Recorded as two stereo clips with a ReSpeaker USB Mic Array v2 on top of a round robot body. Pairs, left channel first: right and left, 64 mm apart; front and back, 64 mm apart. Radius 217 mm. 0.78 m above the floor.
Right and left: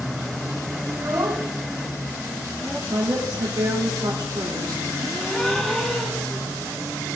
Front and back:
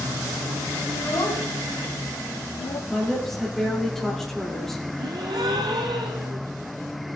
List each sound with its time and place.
0.9 s a child speaking: 50° left, 2.5 m; by 2.8 s 10° right, 1.4 m
2.9 s a woman speaking: 85° left, 2.5 m
5.0 s a gasp: 170° right, 0.5 m